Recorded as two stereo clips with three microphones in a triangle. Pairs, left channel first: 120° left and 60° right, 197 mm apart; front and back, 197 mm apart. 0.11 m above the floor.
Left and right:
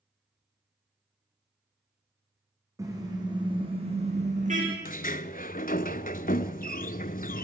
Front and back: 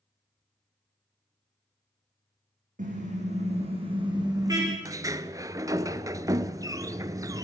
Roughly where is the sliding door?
Behind left.